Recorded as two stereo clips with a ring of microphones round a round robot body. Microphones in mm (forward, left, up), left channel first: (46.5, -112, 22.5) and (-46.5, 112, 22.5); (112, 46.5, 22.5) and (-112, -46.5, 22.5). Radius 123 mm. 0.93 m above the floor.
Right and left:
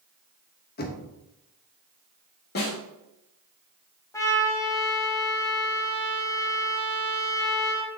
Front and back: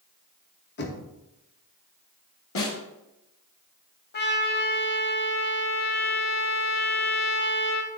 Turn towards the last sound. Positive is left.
turn(degrees=5)